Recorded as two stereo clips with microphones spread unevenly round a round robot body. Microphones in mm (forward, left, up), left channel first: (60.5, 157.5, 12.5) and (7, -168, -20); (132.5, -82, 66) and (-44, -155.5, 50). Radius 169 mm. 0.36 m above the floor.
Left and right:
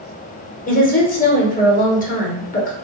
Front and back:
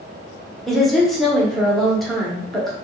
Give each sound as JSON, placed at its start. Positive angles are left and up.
{"t": 0.7, "sound": "a woman speaking", "azimuth_deg": 120, "distance_m": 0.9}